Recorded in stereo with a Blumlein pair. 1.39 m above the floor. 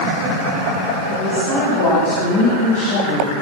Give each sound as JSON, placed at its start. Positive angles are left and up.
{"t": 1.1, "sound": "a woman speaking", "azimuth_deg": 55, "distance_m": 8.0}